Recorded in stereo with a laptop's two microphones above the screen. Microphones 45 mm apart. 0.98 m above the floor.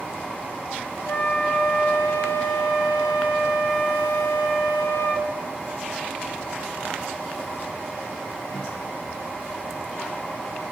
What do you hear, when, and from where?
1.1 s a flute: 70° left (ahead or behind), 3.5 m